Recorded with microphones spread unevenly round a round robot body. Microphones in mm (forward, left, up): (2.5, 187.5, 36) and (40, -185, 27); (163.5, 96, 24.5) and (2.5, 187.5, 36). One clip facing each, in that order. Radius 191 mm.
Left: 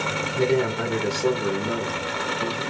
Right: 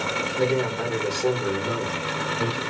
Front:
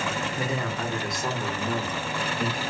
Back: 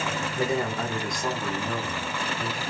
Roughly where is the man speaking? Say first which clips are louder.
Left 2 dB, back 7 dB; left.